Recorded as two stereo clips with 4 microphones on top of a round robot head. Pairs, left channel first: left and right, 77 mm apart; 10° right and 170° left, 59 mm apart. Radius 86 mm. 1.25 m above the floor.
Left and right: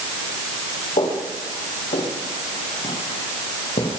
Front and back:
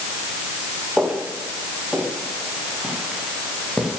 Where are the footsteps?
85° left, 7 m.